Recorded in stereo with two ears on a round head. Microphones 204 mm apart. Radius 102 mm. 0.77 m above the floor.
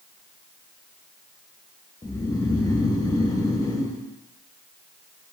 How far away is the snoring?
About 0.7 m.